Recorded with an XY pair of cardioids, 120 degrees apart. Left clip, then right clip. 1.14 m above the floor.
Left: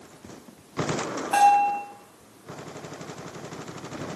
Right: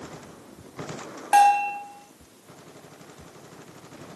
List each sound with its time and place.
1.3 s a bell: 40° right, 3 m